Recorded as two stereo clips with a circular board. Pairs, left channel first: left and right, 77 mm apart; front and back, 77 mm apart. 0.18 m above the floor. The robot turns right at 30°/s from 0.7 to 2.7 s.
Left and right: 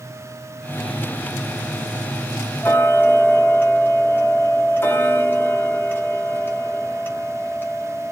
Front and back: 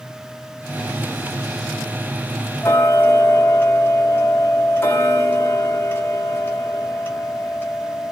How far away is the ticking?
About 0.8 m.